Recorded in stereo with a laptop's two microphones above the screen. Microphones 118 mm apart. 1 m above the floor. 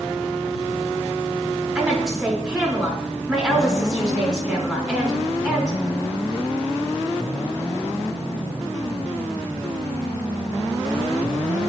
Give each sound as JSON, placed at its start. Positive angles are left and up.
{"t": 1.8, "sound": "a woman speaking", "side_deg": -5, "distance_m": 4.0}